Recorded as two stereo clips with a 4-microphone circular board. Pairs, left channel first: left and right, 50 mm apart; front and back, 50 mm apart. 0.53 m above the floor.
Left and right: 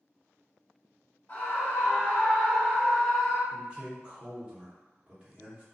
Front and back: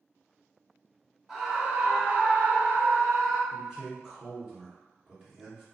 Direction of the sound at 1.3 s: 95° left.